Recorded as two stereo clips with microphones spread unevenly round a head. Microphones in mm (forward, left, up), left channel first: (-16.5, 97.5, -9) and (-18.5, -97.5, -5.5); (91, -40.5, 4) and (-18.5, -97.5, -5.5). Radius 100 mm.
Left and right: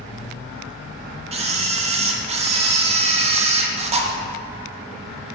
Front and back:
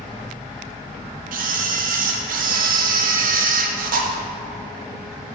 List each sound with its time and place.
1.3 s a camera shutter: 150° right, 0.6 m